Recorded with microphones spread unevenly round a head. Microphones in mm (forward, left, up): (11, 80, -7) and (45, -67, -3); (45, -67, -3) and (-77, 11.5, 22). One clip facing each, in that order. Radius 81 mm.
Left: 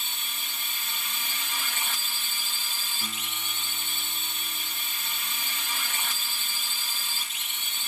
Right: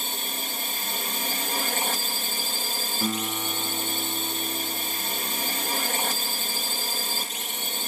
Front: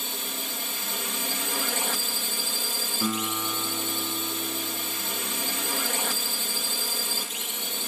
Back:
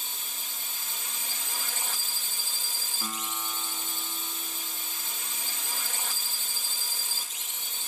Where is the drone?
35° right.